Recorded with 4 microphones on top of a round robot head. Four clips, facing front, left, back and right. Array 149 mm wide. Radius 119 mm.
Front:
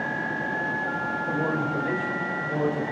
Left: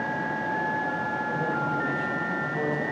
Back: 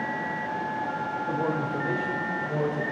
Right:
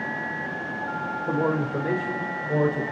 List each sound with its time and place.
1.3 s a man speaking: 95° right, 4 m